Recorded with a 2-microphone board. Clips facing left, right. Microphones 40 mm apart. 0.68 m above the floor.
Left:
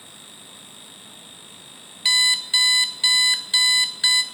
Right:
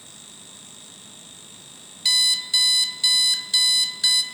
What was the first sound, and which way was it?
An alarm clock, 30° left (ahead or behind).